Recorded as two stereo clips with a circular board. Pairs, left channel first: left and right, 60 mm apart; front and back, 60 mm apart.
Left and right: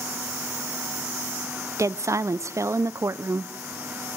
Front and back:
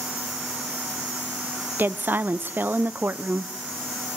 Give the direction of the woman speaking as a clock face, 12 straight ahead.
4 o'clock.